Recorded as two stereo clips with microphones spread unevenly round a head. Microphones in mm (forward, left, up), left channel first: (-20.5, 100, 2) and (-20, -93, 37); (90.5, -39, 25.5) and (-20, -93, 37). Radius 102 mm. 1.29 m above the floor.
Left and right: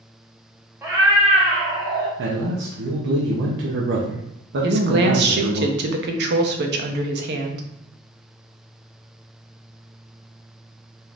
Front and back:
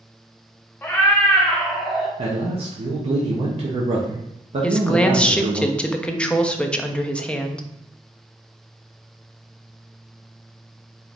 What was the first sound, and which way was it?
A cat meowing, 40° right.